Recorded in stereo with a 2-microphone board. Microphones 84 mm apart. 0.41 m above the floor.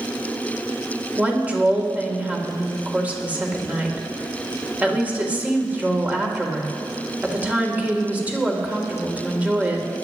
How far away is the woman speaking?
About 1.6 m.